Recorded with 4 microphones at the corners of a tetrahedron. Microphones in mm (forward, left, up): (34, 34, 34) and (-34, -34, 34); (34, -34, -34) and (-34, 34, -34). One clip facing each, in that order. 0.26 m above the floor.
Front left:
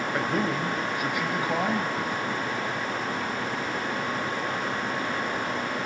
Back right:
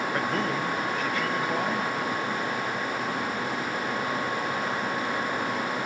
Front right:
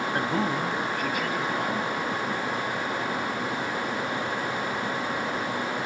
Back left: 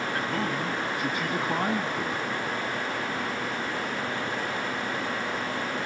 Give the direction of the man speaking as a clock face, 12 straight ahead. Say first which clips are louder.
Front left 3 dB, front right 4 dB; 1 o'clock.